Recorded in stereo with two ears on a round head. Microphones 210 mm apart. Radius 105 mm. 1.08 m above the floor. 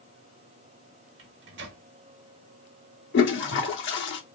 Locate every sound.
1.2 s a microwave: 50° right (ahead or behind), 1.0 m
3.1 s a toilet flushing: 50° left (ahead or behind), 0.9 m